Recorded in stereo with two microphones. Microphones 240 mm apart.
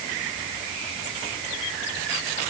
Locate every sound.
Only background noise.